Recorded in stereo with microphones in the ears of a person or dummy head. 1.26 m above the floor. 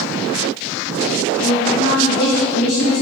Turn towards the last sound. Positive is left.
turn(degrees=50)  # may be behind; listen again after turning